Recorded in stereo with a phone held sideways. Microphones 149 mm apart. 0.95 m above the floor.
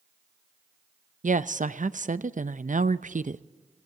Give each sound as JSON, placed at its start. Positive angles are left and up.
{"t": 1.2, "sound": "a woman speaking", "side_deg": -60, "distance_m": 0.6}